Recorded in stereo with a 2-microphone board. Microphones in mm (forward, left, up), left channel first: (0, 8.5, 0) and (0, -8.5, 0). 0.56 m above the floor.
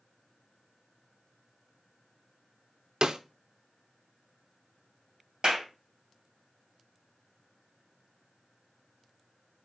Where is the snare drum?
60° right (ahead or behind), 0.5 m.